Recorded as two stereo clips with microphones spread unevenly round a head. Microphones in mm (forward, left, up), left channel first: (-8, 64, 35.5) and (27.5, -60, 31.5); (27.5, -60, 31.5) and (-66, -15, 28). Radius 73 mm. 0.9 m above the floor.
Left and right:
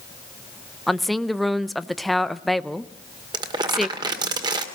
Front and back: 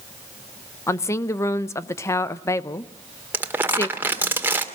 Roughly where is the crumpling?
Behind right.